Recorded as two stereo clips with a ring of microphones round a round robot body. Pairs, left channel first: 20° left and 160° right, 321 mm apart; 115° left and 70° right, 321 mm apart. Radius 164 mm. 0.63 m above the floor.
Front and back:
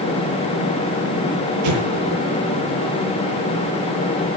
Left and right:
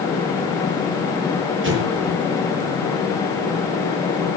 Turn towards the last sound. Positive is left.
turn(degrees=-125)